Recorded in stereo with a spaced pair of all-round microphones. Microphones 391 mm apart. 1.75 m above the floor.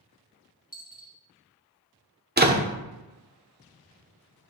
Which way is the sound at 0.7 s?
20° left (ahead or behind).